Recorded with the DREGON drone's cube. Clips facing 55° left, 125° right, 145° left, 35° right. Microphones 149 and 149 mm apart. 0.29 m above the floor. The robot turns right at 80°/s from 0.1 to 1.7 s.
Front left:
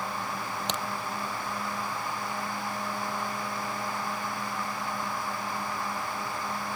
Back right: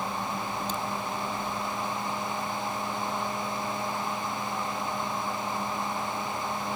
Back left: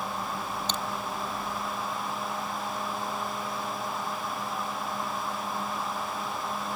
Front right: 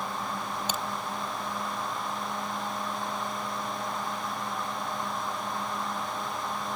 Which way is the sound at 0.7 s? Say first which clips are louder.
Back right 1 dB, front right 1 dB; 45° left.